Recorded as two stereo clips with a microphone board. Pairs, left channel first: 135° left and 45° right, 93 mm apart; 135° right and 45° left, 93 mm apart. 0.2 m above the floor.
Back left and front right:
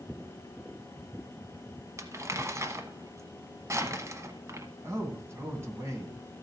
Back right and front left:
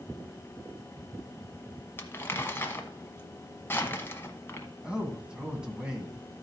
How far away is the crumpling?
About 1.0 m.